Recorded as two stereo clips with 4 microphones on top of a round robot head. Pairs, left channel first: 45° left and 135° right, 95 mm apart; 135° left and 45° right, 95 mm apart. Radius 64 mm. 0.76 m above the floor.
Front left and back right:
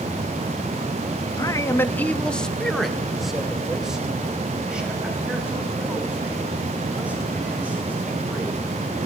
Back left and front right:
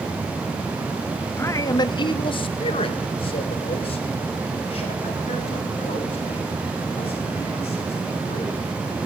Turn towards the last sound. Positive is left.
turn(degrees=150)